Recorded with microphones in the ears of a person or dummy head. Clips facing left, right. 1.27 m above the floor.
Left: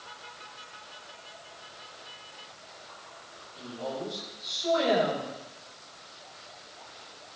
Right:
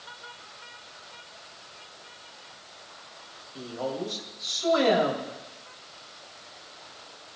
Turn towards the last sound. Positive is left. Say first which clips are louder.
# right 4 dB
turn(degrees=-85)